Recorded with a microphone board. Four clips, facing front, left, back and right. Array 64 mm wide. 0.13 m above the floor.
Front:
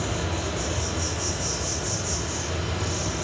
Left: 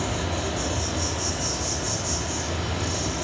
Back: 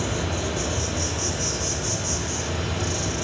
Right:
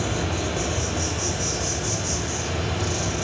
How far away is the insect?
About 4.5 m.